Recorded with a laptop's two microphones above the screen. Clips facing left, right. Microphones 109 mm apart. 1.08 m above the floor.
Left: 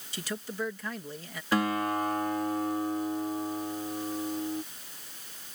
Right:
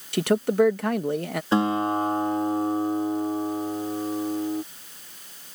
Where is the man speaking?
65° right (ahead or behind).